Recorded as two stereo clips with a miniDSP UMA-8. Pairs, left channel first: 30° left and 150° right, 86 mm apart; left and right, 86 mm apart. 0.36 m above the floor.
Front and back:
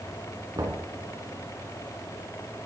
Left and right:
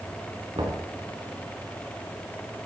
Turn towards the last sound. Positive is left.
turn(degrees=-110)